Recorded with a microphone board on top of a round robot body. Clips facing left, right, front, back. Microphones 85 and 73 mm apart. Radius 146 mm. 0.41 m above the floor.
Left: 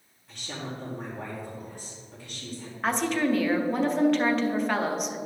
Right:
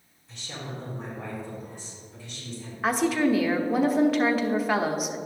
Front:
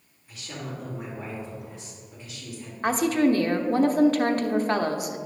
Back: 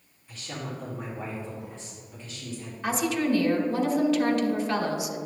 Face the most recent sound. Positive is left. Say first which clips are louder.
# right 2 dB, front 5 dB
turn(degrees=-5)